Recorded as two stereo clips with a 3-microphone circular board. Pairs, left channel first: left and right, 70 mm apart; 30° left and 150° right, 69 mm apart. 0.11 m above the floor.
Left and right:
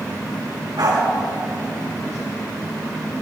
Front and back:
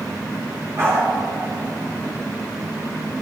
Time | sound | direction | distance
0.8 | a dog barking | 100° right | 6 m